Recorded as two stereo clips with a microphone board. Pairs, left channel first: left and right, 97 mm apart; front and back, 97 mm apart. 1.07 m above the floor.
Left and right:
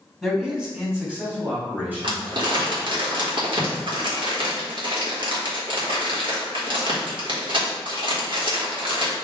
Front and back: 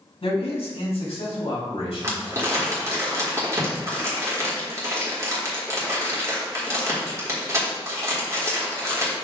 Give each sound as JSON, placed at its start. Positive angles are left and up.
{"t": 0.2, "sound": "a man speaking", "azimuth_deg": 0, "distance_m": 1.3}
{"t": 2.0, "sound": "crumpling", "azimuth_deg": -120, "distance_m": 1.5}